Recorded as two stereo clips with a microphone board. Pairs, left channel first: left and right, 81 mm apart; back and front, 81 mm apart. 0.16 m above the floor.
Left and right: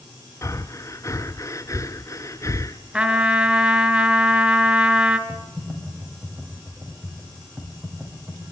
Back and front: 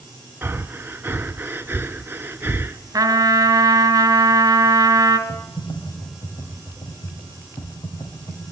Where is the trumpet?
20° right, 2 m.